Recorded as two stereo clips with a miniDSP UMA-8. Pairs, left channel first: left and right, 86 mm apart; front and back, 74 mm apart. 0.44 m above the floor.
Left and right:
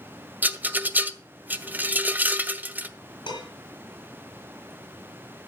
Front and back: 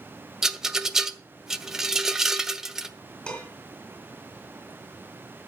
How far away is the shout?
No shout in this recording.